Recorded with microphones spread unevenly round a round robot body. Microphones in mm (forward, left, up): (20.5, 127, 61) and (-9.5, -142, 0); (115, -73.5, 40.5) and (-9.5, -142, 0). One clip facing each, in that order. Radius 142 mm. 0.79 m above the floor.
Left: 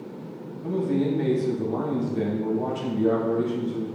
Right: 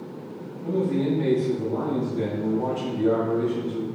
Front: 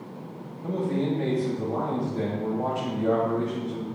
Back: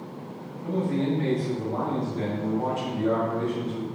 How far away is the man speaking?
About 3 m.